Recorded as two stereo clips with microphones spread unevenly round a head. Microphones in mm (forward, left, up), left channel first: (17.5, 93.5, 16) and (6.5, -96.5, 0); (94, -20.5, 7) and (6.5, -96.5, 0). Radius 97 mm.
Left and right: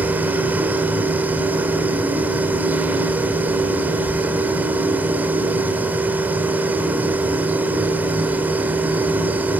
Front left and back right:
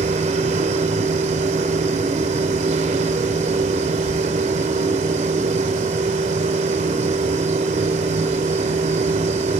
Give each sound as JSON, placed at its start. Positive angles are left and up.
{"t": 0.0, "sound": "a machine running", "azimuth_deg": -175, "distance_m": 2.5}